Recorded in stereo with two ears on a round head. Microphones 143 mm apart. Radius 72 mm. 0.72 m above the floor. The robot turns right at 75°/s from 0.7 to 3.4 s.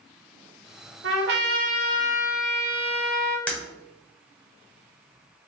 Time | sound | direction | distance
1.0 | a trumpet | 95° right | 0.6 m
3.5 | breaking glass | 10° left (ahead or behind) | 0.8 m